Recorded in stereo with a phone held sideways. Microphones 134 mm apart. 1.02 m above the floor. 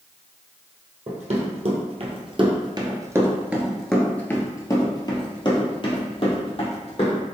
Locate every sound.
1.1 s running footsteps: 55° right (ahead or behind), 1.9 m; by 7.2 s 50° left (ahead or behind), 3 m